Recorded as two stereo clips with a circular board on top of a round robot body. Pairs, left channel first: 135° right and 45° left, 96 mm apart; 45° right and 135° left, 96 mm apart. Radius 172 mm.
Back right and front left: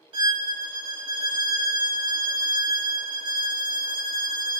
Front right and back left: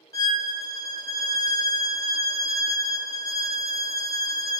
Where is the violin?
10° left, 0.8 m.